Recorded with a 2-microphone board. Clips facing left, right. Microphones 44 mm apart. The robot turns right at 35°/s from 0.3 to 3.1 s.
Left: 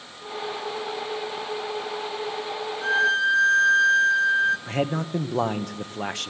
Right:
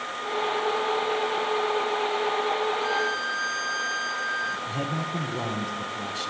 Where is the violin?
40° left (ahead or behind), 2.5 m; by 4.6 s 50° left (ahead or behind), 2.5 m.